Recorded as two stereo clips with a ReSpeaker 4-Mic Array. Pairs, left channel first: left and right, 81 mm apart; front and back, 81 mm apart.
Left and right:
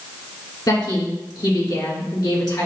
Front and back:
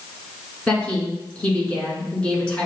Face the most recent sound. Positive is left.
turn(degrees=75)